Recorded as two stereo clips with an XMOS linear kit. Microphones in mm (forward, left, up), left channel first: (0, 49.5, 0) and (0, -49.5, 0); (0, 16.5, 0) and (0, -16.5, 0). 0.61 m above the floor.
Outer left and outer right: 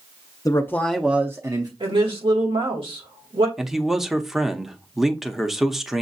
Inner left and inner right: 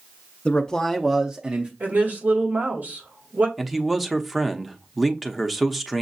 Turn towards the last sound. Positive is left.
turn(degrees=-5)  # may be behind; listen again after turning